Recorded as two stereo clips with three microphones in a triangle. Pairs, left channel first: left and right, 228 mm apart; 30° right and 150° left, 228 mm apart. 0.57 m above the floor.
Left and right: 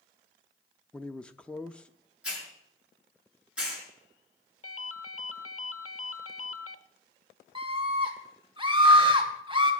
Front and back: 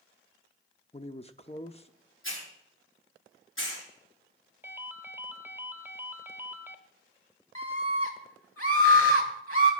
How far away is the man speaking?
About 0.7 m.